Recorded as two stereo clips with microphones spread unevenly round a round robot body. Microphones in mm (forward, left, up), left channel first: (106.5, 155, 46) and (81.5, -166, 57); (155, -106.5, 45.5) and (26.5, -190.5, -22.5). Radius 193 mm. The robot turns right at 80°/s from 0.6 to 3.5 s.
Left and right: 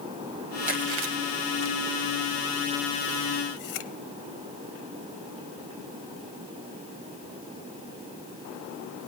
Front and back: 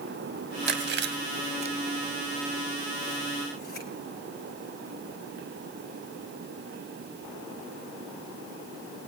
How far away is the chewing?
About 1.1 m.